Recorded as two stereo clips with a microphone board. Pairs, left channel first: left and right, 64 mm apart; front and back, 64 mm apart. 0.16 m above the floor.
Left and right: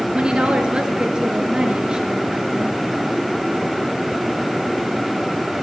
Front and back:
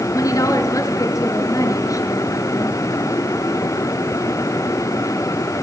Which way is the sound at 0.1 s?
15° right.